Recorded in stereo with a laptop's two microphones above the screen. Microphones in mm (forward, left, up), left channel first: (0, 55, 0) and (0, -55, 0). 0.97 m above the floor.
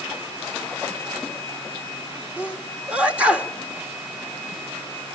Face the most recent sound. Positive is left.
turn(degrees=-10)  # may be behind; listen again after turning